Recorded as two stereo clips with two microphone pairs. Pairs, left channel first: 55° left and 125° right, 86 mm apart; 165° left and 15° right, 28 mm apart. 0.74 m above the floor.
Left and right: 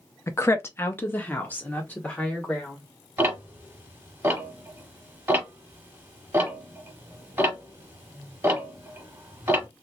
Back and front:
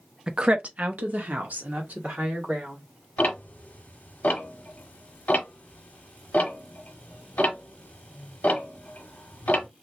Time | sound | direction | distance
0.3 | a woman speaking | 30° left | 0.5 m
3.2 | ticking | 175° left | 1.0 m